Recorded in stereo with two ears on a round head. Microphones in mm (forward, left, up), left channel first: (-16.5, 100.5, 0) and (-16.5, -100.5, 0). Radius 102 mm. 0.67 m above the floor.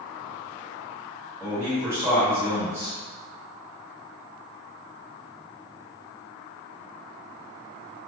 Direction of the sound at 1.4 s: 10° right (ahead or behind).